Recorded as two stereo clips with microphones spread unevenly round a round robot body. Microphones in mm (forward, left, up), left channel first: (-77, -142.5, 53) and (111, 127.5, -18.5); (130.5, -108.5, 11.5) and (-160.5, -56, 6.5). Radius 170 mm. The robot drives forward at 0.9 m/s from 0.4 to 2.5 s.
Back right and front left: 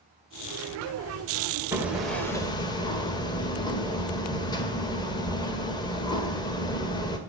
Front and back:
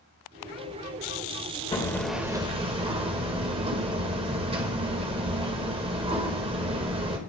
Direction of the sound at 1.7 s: 30° left.